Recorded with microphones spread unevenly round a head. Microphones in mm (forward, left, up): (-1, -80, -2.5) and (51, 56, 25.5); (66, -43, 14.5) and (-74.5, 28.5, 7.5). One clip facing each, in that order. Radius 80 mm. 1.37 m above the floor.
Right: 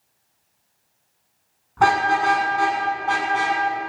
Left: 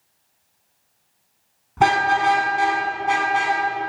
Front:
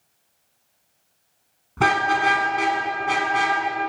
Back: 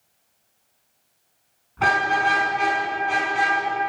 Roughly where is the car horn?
Ahead.